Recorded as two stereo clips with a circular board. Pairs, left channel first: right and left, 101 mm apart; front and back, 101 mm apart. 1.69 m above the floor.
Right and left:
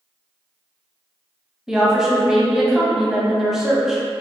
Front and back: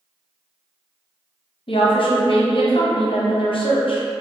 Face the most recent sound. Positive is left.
turn(degrees=5)